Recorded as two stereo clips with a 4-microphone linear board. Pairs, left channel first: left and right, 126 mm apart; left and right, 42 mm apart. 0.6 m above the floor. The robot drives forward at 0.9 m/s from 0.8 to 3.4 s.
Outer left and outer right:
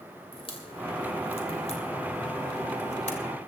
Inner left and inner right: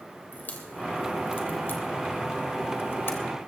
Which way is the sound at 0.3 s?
45° left (ahead or behind).